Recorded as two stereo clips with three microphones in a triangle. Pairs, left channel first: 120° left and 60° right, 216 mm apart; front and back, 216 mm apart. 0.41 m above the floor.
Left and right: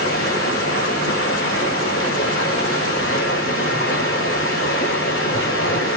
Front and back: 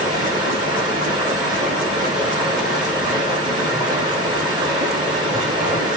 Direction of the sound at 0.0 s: 110° left.